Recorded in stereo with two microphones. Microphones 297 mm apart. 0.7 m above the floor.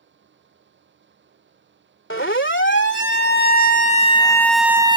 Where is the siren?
45° left (ahead or behind); by 5.0 s 20° right (ahead or behind).